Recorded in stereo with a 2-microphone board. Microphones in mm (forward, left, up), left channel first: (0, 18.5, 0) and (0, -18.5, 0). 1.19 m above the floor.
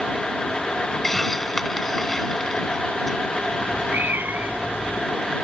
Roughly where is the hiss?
Centre.